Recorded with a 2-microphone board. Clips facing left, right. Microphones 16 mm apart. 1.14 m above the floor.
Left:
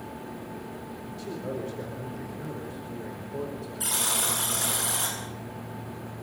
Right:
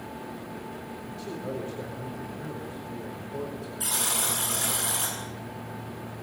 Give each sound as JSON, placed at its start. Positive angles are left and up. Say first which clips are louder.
{"t": 1.1, "sound": "a man speaking", "louder": "left 1 dB", "side_deg": 5, "distance_m": 4.5}
{"t": 3.8, "sound": "a buzzer", "louder": "left 1 dB", "side_deg": 0, "distance_m": 9.5}